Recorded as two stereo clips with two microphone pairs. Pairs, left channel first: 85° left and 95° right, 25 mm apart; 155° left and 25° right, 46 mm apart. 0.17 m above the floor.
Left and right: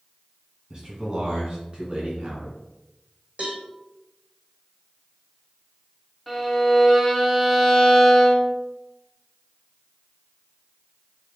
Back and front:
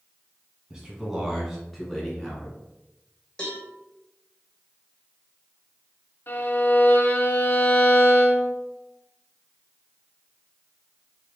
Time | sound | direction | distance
0.7 | a man speaking | 80° right | 1.3 m
3.4 | a cowbell | 130° right | 1.9 m
6.3 | a violin | 170° left | 0.9 m